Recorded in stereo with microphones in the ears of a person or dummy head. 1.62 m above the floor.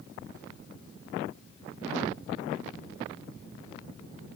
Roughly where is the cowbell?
I don't hear a cowbell.